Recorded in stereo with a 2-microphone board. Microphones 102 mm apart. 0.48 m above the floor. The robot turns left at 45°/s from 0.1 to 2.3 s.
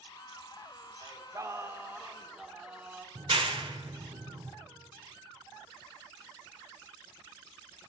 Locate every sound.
1.0 s singing: 105° right, 1.2 m; by 3.0 s 160° right, 1.2 m
3.1 s a clap: 60° right (ahead or behind), 1.3 m